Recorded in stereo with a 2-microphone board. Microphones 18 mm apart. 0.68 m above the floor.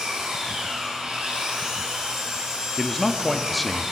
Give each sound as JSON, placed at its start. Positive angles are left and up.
{"t": 0.0, "sound": "an engine running", "side_deg": -85, "distance_m": 6.5}
{"t": 2.8, "sound": "a man speaking", "side_deg": 0, "distance_m": 0.9}